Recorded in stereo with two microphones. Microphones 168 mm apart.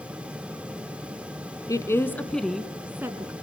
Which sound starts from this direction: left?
A woman speaking, at 1.7 s.